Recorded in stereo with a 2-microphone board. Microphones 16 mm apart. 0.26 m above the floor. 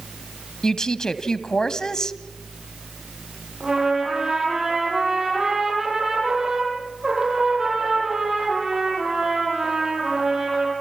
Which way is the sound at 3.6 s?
35° right (ahead or behind).